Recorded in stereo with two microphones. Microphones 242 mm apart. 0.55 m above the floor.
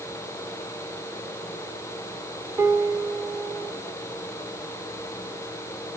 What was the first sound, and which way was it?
A piano, 15° right (ahead or behind).